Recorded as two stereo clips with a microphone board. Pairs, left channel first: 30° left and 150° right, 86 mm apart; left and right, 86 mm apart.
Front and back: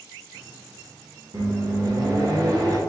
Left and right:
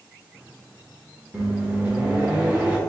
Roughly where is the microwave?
Behind.